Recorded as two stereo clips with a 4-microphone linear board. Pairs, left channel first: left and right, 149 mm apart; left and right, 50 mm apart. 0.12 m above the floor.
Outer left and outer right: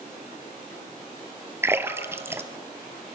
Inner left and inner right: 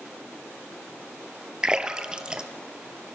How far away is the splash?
About 1.2 m.